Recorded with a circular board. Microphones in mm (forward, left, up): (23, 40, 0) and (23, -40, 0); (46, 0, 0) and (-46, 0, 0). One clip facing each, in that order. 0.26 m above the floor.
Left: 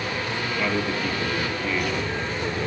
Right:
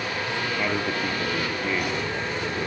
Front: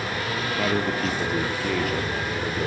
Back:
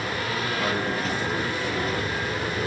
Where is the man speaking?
20° right, 6 m.